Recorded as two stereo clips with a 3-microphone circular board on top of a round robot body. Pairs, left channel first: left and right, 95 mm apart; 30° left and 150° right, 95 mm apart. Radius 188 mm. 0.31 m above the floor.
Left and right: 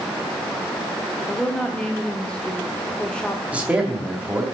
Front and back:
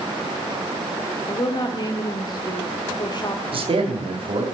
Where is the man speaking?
165° right, 2.5 m.